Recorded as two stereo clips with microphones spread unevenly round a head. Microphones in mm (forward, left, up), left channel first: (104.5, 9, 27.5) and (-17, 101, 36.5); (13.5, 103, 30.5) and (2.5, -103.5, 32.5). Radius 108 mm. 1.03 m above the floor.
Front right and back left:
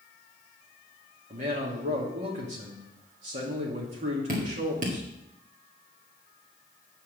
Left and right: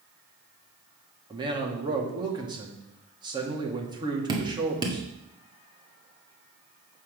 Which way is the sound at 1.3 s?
165° right.